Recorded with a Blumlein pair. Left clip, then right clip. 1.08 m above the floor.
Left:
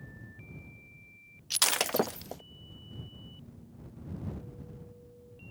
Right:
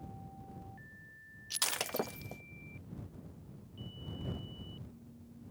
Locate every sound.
1.5 s breaking glass: 70° left